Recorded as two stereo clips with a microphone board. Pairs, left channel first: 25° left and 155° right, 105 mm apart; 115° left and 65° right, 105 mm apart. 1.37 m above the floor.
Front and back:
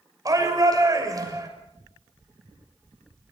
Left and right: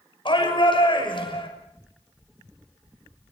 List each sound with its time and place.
0.2 s a shout: 150° left, 6 m